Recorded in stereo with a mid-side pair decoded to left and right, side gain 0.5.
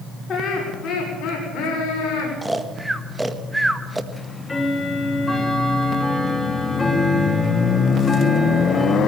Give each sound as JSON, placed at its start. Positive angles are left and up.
{"t": 0.3, "sound": "laughter", "azimuth_deg": 50, "distance_m": 5.5}
{"t": 2.4, "sound": "snoring", "azimuth_deg": -10, "distance_m": 1.5}
{"t": 4.1, "sound": "ticking", "azimuth_deg": 15, "distance_m": 2.5}